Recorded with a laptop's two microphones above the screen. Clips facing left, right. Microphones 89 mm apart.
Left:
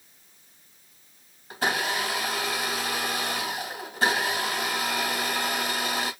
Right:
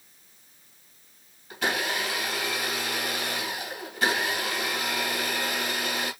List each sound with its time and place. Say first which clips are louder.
1.5 s a blender: left 1 dB; 35° left (ahead or behind), 2 m